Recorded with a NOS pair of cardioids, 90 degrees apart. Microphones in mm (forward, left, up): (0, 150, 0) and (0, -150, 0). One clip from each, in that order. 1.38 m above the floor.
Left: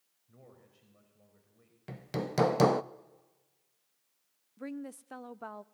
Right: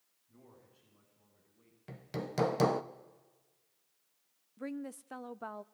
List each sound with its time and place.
0.3 s a man speaking: 65° left, 6 m
1.9 s hammering: 20° left, 0.6 m
4.6 s a woman speaking: straight ahead, 0.5 m